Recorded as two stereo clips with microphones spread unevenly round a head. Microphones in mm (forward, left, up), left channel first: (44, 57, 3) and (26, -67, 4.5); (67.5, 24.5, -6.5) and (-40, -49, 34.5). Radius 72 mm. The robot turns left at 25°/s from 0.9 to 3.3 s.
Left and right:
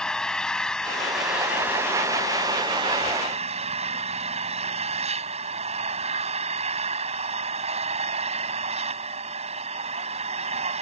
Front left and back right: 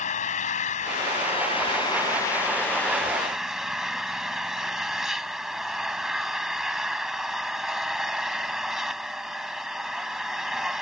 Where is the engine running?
5° right; by 10.8 s 65° right.